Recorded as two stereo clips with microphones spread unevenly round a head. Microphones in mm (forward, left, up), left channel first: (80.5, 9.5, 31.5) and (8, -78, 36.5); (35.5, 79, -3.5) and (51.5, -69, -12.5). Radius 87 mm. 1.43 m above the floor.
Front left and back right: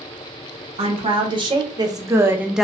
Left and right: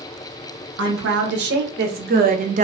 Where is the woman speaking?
85° right, 1.3 m; by 2.6 s 40° right, 0.5 m.